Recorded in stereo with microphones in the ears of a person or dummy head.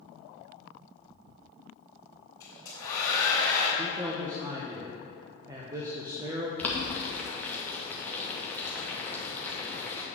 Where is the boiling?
Centre (ahead or behind), 1.2 m.